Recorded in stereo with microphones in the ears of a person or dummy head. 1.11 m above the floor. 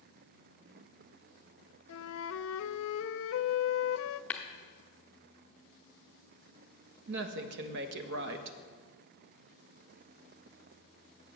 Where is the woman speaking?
60° right (ahead or behind), 1.1 m.